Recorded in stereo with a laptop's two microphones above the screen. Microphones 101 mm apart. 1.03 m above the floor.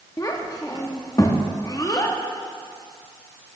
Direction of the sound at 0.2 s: 35° left (ahead or behind).